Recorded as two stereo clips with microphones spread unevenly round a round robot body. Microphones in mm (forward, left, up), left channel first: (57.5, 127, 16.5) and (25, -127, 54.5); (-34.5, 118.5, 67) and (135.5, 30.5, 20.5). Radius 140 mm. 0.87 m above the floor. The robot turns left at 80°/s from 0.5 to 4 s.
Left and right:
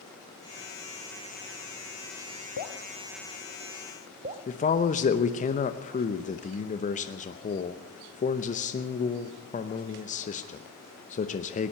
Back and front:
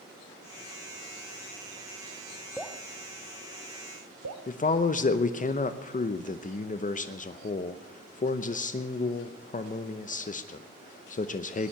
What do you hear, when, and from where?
2.6 s dripping: 70° left, 0.8 m; by 4.5 s 45° right, 0.8 m
4.5 s a man speaking: 105° left, 0.8 m